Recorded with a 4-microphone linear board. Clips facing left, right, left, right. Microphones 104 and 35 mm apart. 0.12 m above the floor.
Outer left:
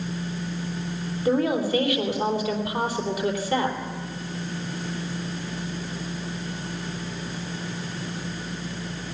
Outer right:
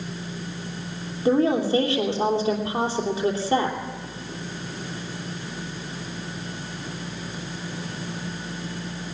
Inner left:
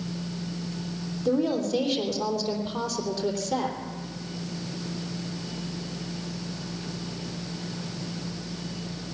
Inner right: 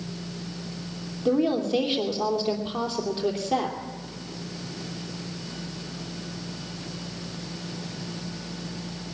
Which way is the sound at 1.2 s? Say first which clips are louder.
Outer right 3 dB, inner right 2 dB; 30° right (ahead or behind).